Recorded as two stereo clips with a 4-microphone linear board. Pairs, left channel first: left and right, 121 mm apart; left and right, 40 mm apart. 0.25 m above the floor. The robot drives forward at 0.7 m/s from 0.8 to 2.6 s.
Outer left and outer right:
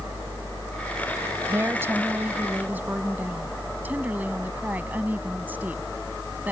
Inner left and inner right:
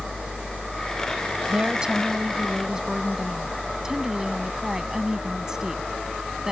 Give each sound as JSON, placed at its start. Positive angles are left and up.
{"t": 1.5, "sound": "a woman speaking", "side_deg": -20}